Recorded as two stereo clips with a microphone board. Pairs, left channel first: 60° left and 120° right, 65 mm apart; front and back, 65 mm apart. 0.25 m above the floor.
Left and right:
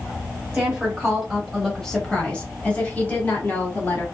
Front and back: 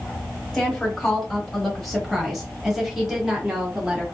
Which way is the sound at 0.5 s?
65° right.